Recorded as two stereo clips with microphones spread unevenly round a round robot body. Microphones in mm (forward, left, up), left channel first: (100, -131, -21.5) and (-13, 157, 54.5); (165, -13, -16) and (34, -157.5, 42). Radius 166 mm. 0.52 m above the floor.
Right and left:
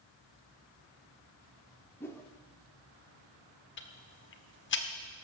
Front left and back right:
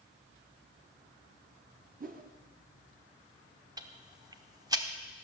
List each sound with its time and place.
2.0 s a whoosh: 110° right, 1.1 m
3.8 s ticking: 50° right, 1.3 m